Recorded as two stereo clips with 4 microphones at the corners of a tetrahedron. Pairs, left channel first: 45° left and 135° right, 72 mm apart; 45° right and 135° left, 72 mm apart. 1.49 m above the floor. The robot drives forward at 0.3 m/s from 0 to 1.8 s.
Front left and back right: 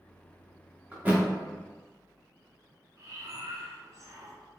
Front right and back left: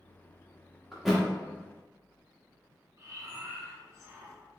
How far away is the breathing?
About 0.9 m.